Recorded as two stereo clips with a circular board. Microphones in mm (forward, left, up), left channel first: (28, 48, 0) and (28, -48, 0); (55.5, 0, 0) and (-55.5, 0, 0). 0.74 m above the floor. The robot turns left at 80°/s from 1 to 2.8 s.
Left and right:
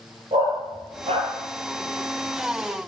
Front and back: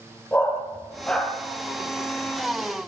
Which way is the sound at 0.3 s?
75° right.